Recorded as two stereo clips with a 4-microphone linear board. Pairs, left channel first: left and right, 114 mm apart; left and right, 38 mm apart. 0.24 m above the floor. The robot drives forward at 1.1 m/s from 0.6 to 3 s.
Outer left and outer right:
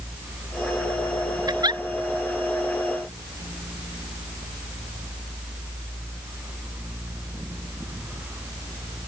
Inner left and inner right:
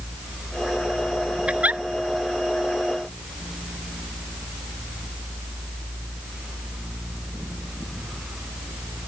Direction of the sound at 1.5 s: 35° right (ahead or behind).